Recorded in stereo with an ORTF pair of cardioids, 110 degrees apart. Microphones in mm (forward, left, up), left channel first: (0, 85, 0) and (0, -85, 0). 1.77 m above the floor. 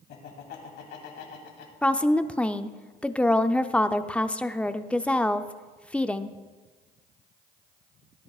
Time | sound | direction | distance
0.1 | laughter | 70° left | 3 m
1.8 | a woman speaking | 5° left | 0.6 m